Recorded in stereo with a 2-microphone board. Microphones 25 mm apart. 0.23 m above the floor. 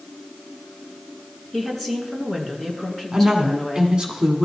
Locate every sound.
1.5 s a woman speaking: 5° left (ahead or behind), 2.5 m
3.1 s a woman speaking: 30° right (ahead or behind), 1.7 m